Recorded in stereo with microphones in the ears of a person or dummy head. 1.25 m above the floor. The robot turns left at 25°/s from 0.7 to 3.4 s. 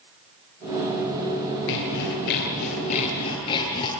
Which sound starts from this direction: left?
Sawing, at 1.7 s.